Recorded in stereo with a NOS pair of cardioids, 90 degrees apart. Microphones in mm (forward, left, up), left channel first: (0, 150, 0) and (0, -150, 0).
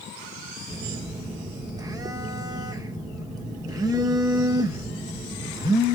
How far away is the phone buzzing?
About 1.7 m.